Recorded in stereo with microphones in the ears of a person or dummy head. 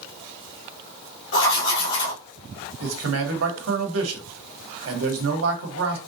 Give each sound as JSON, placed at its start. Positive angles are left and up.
{"t": 1.3, "sound": "writing", "side_deg": 75, "distance_m": 1.5}
{"t": 2.8, "sound": "a man speaking", "side_deg": -80, "distance_m": 1.1}